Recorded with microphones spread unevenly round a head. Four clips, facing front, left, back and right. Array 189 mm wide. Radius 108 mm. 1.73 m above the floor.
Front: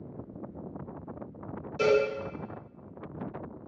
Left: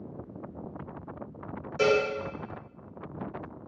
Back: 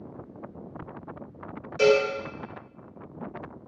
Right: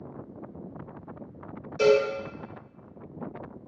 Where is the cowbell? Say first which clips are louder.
Right 4 dB, back 4 dB; 55° left, 1.3 m.